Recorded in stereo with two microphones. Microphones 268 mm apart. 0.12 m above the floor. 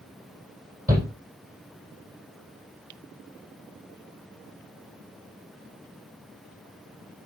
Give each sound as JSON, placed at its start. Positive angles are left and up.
{"t": 0.9, "sound": "a shout", "side_deg": -35, "distance_m": 4.0}